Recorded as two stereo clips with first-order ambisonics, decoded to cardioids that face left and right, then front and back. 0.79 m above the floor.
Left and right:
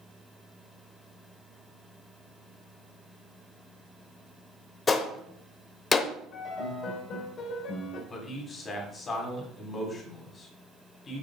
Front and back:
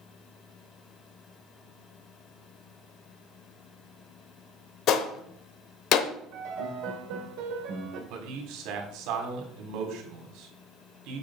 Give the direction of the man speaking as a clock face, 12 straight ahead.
7 o'clock.